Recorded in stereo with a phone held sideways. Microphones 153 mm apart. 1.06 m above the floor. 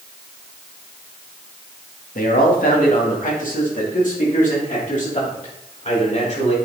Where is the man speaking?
70° left (ahead or behind), 1.8 m; by 6.5 s 50° left (ahead or behind), 4 m.